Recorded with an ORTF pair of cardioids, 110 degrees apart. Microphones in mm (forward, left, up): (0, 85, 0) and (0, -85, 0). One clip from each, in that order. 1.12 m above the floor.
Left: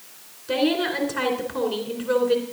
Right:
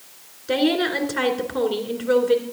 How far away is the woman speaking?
About 2.5 m.